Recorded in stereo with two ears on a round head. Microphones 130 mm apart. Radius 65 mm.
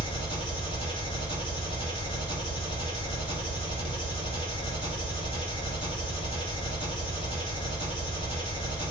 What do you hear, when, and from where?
0.0 s an engine running: 35° left (ahead or behind), 1.4 m